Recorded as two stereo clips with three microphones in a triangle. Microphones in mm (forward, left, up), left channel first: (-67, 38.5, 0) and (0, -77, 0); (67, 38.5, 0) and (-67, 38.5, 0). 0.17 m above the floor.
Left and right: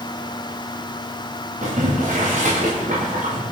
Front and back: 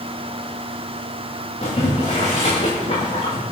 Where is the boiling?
35° right, 9 m.